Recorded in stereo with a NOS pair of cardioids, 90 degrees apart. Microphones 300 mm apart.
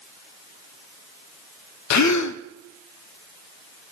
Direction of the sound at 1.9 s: 70° left.